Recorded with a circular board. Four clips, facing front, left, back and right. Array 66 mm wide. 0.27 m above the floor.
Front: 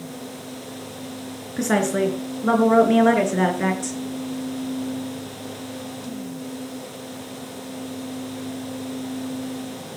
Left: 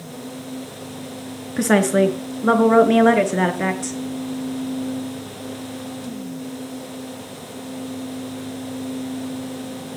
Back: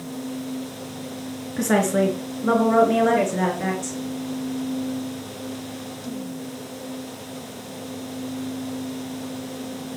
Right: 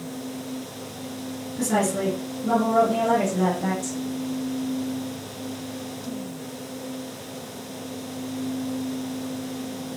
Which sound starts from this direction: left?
A woman speaking, at 1.6 s.